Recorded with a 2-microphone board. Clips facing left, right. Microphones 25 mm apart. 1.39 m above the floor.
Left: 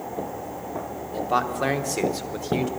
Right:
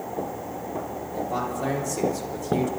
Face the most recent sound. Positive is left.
turn(degrees=40)  # may be behind; listen again after turning